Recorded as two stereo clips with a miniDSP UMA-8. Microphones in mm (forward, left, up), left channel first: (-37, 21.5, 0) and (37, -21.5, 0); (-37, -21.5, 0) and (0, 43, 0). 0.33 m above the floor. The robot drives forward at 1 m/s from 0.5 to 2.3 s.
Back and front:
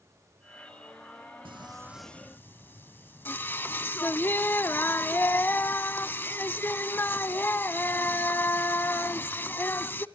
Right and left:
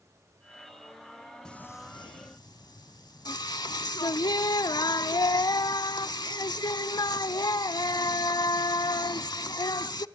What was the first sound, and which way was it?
Singing, 40° right.